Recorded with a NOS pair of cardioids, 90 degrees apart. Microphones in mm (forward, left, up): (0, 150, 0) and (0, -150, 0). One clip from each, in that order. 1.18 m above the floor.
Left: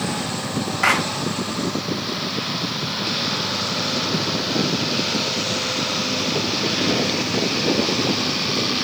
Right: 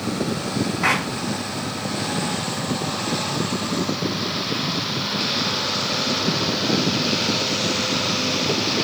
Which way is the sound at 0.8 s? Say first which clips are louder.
Left 3 dB; 55° left.